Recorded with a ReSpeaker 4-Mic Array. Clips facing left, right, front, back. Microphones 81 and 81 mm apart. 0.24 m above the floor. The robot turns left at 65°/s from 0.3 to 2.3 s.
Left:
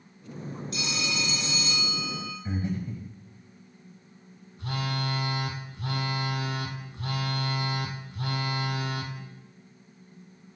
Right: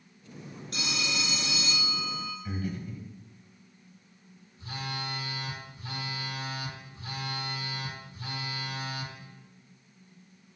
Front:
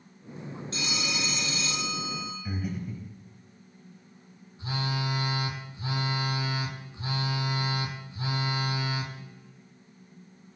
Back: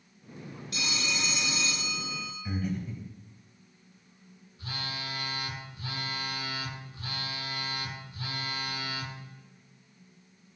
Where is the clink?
I don't hear a clink.